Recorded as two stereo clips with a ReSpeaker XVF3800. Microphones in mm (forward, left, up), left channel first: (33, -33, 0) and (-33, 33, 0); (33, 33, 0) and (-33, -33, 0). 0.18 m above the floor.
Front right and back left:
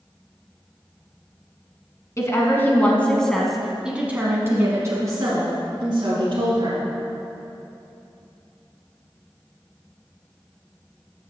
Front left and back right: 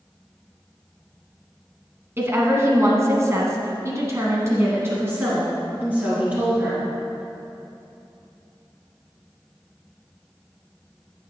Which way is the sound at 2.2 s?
85° right.